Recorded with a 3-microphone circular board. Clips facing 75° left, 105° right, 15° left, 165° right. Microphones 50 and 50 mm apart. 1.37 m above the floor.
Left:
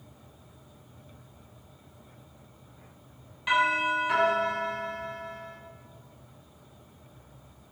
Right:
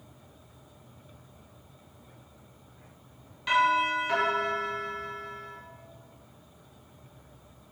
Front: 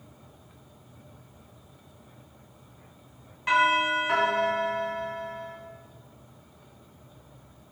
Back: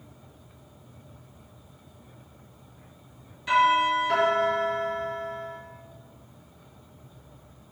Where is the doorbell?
5° right, 1.9 m.